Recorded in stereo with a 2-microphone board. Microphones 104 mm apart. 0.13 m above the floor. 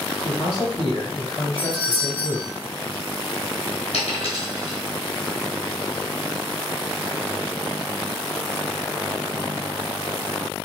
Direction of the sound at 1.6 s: 15° left (ahead or behind).